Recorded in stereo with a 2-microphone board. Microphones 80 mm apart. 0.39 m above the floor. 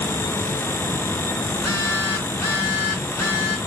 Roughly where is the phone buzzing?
Left.